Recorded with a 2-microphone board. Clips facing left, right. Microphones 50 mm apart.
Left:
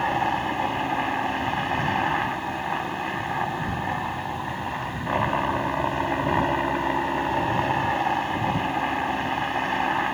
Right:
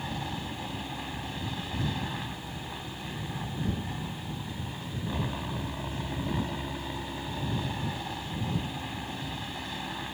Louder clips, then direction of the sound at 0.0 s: Left 13 dB; 50° left (ahead or behind).